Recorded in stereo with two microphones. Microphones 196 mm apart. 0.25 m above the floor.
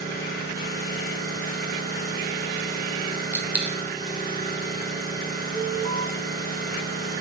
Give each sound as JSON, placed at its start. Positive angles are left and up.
{"t": 0.0, "sound": "an engine running", "side_deg": 45, "distance_m": 3.0}
{"t": 3.3, "sound": "a dropped coin", "side_deg": -5, "distance_m": 1.0}
{"t": 5.5, "sound": "an alarm", "side_deg": 30, "distance_m": 1.9}